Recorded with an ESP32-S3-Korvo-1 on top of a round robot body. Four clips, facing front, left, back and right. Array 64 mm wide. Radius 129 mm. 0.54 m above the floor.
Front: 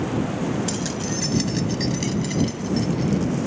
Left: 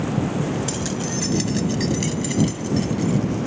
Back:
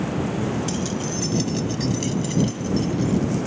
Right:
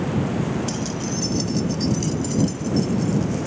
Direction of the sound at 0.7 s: 40° left.